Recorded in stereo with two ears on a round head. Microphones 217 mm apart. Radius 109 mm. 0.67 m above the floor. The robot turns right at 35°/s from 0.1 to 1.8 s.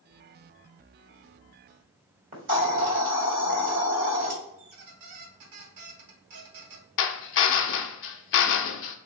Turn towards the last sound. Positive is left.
turn(degrees=50)  # may be behind; listen again after turning